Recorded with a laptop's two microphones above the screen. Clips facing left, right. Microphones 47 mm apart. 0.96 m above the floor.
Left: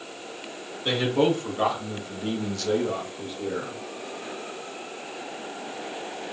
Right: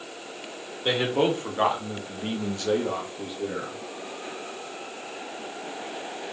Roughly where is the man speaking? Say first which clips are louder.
Left 1 dB; right.